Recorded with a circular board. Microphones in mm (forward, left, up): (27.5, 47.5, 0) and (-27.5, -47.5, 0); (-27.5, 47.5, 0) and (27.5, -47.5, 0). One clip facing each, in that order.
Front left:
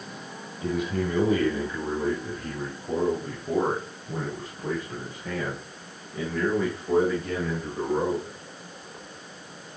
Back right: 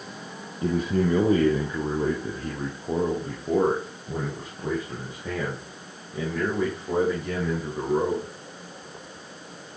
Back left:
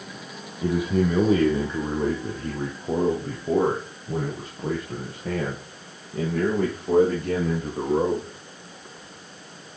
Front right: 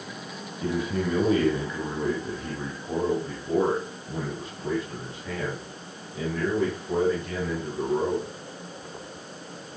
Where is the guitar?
No guitar in this recording.